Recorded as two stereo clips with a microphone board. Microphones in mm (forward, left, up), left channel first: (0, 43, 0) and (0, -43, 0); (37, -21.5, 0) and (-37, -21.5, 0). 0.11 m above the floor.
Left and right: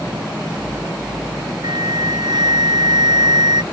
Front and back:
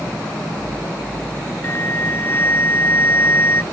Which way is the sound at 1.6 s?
60° right.